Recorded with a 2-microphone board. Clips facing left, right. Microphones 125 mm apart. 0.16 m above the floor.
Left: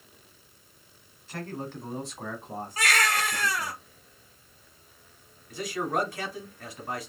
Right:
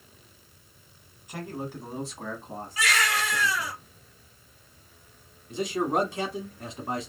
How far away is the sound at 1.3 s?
About 1.1 m.